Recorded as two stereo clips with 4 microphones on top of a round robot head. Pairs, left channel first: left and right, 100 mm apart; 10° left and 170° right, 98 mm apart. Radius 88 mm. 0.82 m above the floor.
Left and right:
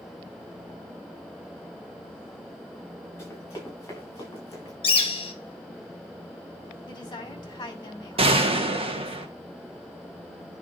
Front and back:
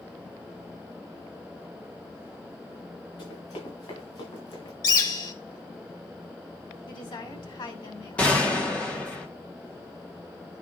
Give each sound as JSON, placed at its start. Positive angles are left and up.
{"t": 3.2, "sound": "running footsteps", "azimuth_deg": 30, "distance_m": 5.5}
{"t": 4.8, "sound": "a bird", "azimuth_deg": 55, "distance_m": 1.7}
{"t": 6.9, "sound": "a woman speaking", "azimuth_deg": 45, "distance_m": 2.5}
{"t": 8.2, "sound": "a gunshot", "azimuth_deg": -70, "distance_m": 1.5}